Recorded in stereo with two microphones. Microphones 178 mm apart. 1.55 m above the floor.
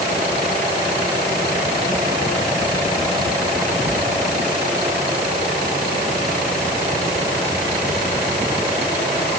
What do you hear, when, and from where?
Only background noise.